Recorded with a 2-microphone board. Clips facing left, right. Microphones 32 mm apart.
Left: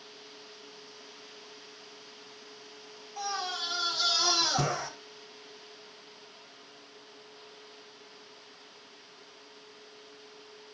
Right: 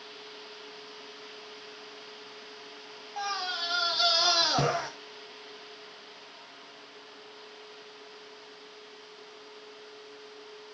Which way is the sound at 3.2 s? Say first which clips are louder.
Right 2 dB; 35° right (ahead or behind).